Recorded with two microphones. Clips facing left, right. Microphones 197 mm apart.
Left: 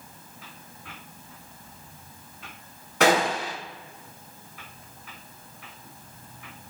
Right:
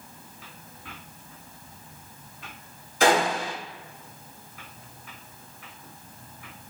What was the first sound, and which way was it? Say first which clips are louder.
A gunshot: even; 70° left (ahead or behind).